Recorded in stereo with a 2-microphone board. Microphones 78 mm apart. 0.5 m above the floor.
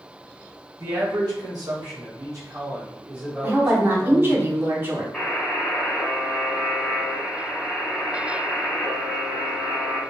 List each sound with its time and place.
0.8 s a man speaking: 60° right (ahead or behind), 1.5 m; by 4.4 s 5° left (ahead or behind), 1.2 m
3.4 s a woman speaking: 30° right (ahead or behind), 0.9 m
5.1 s a buzzer: 5° left (ahead or behind), 1.0 m